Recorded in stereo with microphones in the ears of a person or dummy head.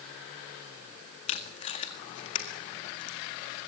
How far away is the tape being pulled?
About 1.8 m.